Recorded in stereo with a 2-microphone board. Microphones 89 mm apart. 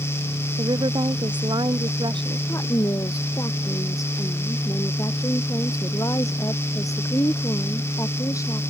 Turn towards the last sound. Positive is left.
turn(degrees=40)  # may be behind; listen again after turning